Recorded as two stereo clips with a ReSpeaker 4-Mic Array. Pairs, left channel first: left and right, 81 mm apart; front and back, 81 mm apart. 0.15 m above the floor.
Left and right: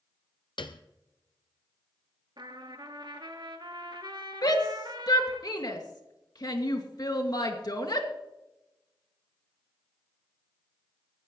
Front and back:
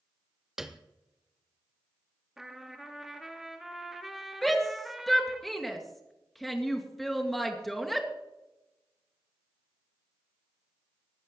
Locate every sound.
0.6 s a piano: 95° left, 1.0 m
2.4 s a trumpet: 95° right, 1.6 m
4.4 s a shout: 85° left, 2.5 m